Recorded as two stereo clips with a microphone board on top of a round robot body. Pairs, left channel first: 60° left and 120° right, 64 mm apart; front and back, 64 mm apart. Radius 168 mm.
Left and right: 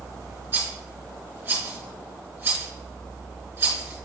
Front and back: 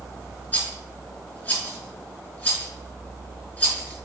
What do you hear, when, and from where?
0.5 s a rattle: 65° right, 4.5 m